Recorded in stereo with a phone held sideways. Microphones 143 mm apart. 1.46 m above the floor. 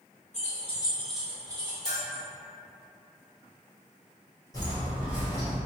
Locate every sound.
0.3 s keys jangling: 50° left (ahead or behind), 0.8 m; by 2.2 s 45° right (ahead or behind), 1.3 m
1.9 s a bell: 55° left (ahead or behind), 1.1 m
4.5 s footsteps: 25° left (ahead or behind), 1.6 m; by 5.6 s 35° right (ahead or behind), 1.7 m